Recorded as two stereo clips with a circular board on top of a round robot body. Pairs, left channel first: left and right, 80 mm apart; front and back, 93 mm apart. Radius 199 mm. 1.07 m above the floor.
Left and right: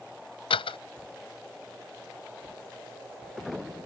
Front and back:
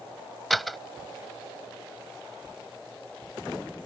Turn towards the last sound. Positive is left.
turn(degrees=90)